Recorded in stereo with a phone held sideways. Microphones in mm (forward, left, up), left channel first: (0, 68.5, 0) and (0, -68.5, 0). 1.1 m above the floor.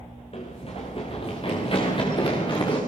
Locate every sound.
0.3 s running footsteps: 45° left (ahead or behind), 6 m; by 2.8 s 35° left (ahead or behind), 8 m